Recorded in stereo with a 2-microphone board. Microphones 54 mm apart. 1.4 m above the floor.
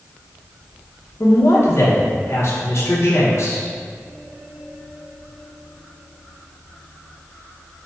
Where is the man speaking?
55° left (ahead or behind), 0.9 m.